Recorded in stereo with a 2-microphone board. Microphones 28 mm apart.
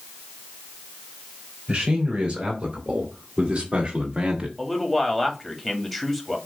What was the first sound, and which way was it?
A man speaking, 30° right (ahead or behind).